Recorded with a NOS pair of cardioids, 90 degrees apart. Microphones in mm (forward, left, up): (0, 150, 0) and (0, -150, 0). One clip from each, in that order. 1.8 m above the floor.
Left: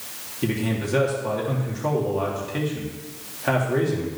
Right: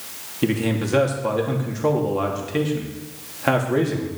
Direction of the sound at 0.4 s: 35° right.